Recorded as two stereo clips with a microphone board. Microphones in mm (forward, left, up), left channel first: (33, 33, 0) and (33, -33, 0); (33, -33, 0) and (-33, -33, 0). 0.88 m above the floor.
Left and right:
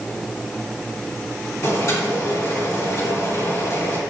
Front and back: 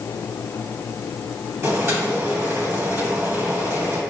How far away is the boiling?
About 3.5 m.